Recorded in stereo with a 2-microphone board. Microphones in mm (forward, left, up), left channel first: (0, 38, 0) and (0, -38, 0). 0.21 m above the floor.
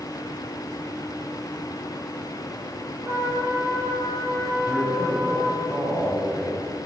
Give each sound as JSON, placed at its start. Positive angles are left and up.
{"t": 3.0, "sound": "a trumpet", "side_deg": -55, "distance_m": 3.0}
{"t": 4.7, "sound": "a man speaking", "side_deg": -5, "distance_m": 2.5}